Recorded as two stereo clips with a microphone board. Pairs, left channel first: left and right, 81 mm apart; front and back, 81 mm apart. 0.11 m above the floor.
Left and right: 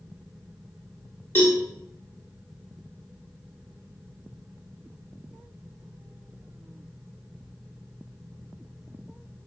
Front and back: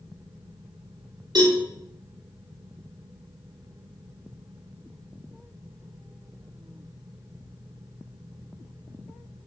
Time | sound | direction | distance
1.4 | a cowbell | 150° left | 6 m